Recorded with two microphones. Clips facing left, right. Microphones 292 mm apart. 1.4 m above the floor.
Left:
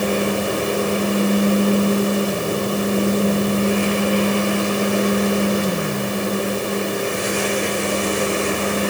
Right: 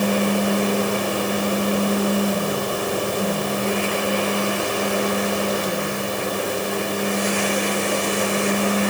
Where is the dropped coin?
No dropped coin in this recording.